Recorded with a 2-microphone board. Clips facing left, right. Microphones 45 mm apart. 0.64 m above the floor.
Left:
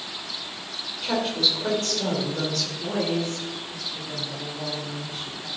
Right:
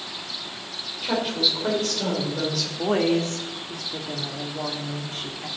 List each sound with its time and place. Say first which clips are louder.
1.0 s a woman speaking: even; 5° right (ahead or behind), 2.5 m
2.8 s a woman speaking: right 6 dB; 65° right (ahead or behind), 1.3 m